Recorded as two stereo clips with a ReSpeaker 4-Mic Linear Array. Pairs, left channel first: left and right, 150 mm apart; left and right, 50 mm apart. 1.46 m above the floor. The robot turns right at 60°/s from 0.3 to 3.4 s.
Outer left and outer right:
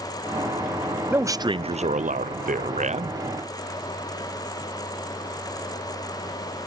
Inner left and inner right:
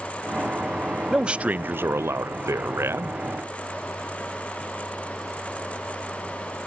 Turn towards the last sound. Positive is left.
turn(degrees=-30)